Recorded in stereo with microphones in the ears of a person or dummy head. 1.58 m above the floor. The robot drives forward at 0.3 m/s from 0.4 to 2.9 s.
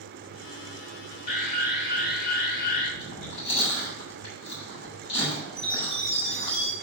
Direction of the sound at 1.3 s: 60° left (ahead or behind).